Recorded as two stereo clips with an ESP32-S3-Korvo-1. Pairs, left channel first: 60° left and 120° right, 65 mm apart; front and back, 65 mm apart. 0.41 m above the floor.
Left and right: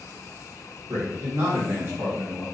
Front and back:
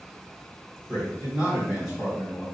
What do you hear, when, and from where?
0.9 s a man speaking: 105° right, 1.6 m